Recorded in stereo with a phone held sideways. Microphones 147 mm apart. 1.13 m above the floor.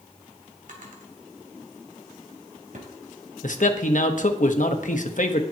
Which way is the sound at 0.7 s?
65° right (ahead or behind).